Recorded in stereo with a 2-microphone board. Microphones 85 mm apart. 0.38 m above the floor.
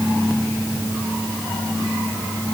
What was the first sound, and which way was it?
Only background noise.